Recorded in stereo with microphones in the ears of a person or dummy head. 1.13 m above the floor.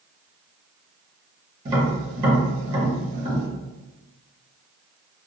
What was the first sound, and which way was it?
Tapping, 25° right (ahead or behind).